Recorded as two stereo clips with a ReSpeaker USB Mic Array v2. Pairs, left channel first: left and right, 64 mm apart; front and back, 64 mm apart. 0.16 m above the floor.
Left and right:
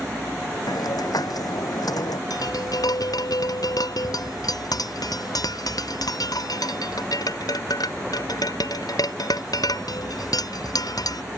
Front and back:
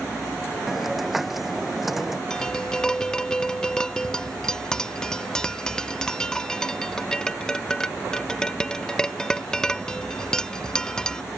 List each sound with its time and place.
0.7 s a hiss: 95° left
2.3 s tapping: 80° left